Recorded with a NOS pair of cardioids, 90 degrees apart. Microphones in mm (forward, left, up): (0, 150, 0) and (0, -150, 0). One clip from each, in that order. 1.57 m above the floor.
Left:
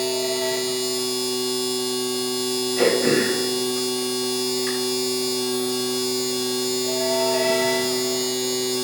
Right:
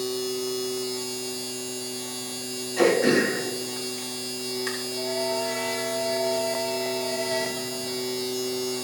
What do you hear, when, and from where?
0.0 s a machine running: 60° left, 4 m
2.8 s throat clearing: 10° right, 4 m